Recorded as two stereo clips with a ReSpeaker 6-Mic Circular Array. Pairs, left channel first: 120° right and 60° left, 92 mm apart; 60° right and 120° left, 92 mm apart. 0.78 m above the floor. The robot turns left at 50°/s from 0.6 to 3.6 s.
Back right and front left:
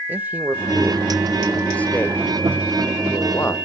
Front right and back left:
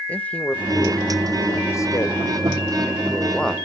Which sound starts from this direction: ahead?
A man speaking, at 0.1 s.